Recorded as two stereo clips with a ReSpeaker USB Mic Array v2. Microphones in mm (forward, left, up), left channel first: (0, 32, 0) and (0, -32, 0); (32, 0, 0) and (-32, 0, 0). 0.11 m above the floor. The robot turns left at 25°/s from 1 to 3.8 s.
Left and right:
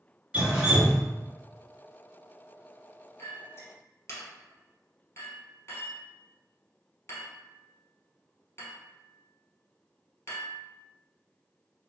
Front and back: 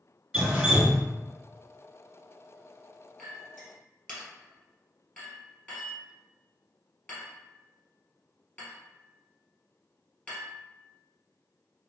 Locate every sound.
0.3 s dripping: 130° right, 1.4 m
3.2 s a clink: 75° left, 1.5 m; by 10.6 s 60° left, 1.5 m